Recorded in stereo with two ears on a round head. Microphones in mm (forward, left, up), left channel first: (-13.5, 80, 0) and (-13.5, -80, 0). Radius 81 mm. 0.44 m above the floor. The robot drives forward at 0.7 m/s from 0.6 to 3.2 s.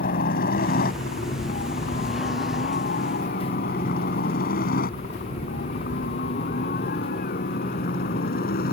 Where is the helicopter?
50° left (ahead or behind).